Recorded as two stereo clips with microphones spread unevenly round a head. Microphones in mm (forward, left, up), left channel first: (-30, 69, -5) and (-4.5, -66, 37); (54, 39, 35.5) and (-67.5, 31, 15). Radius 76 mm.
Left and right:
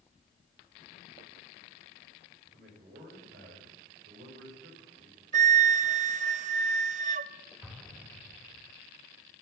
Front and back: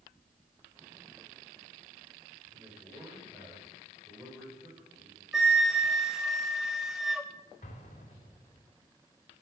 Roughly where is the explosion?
Ahead.